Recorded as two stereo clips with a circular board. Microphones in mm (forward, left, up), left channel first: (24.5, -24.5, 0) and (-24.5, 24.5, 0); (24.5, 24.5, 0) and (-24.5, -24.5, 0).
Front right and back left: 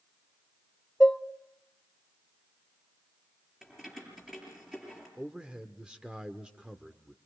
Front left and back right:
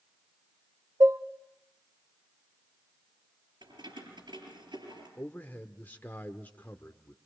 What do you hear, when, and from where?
1.0 s dishes clattering: 120° right, 0.9 m
3.6 s keys jangling: 140° right, 7.5 m
5.2 s a man speaking: 75° left, 1.0 m